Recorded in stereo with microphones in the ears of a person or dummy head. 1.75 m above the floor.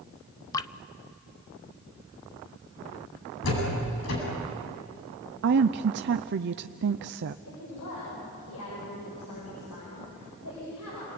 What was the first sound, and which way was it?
Dripping, 20° left (ahead or behind).